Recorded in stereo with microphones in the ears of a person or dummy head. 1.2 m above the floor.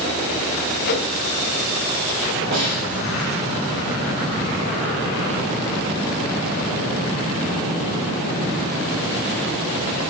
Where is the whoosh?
55° left (ahead or behind), 3 m.